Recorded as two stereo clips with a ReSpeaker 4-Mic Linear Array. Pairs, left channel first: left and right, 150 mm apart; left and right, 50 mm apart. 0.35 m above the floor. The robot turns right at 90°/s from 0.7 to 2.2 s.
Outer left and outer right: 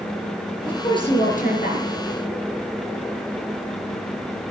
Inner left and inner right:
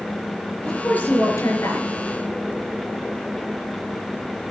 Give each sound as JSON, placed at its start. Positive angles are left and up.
{"t": 0.7, "sound": "a woman speaking", "azimuth_deg": 10, "distance_m": 6.0}